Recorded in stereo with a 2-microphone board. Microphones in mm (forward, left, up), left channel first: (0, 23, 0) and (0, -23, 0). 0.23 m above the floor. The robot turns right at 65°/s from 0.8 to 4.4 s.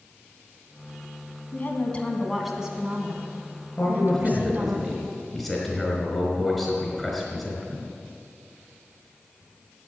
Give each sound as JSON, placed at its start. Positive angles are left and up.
{"t": 1.5, "sound": "a woman speaking", "azimuth_deg": 125, "distance_m": 2.0}
{"t": 3.8, "sound": "a man speaking", "azimuth_deg": 135, "distance_m": 4.0}